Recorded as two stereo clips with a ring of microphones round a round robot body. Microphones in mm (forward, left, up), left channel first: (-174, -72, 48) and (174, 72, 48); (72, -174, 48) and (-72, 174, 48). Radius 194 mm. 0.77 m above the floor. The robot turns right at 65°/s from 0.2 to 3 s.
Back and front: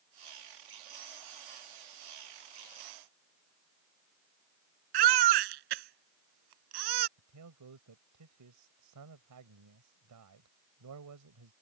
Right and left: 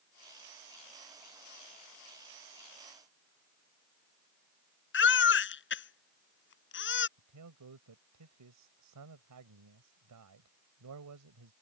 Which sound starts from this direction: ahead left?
A man speaking, at 7.2 s.